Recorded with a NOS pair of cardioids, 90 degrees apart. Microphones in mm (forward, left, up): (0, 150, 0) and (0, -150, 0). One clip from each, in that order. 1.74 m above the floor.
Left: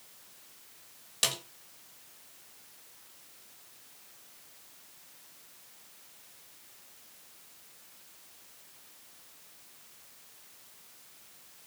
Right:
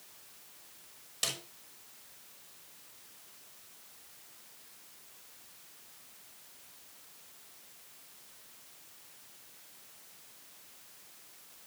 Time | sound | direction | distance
1.2 | a snare drum | 40° left | 5.5 m